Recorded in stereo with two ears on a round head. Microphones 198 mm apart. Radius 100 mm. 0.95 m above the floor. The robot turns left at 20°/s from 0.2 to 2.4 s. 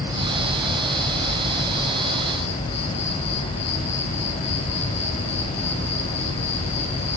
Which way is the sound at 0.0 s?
165° right.